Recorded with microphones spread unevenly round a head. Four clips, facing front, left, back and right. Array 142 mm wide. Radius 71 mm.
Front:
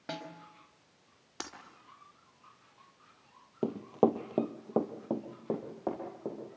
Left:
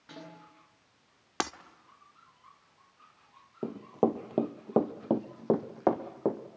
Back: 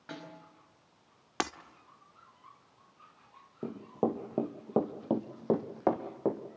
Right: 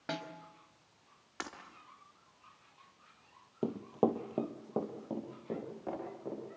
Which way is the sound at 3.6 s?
Straight ahead.